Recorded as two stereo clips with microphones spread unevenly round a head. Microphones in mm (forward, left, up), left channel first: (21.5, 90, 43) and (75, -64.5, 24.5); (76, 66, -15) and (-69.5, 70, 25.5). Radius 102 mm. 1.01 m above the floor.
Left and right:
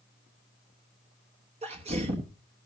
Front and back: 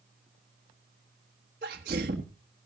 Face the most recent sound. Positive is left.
turn(degrees=-125)